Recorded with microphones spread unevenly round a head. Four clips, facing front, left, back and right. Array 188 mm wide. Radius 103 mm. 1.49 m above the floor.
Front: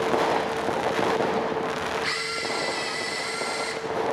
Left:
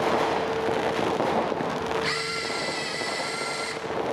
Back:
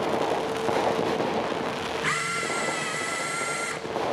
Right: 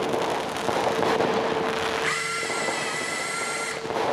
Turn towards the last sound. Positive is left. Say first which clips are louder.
# right 1 dB, back 1 dB
turn(degrees=170)